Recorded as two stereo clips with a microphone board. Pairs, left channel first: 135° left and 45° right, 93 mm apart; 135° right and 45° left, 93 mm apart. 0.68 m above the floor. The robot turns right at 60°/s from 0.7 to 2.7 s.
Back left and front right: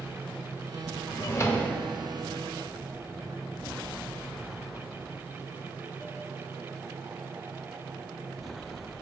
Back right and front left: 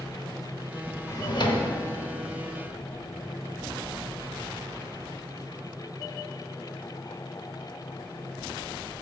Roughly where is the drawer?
Behind.